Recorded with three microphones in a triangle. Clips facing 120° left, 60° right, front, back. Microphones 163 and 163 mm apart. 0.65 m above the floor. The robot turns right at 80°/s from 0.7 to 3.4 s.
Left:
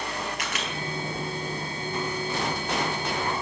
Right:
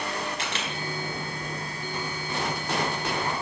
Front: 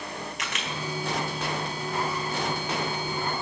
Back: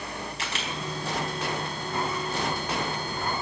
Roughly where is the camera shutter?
Behind right.